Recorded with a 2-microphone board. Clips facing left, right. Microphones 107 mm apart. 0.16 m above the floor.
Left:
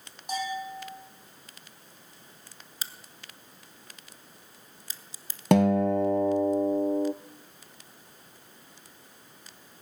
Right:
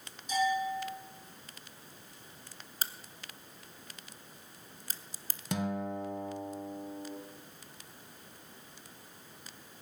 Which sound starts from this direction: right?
A crack, at 2.8 s.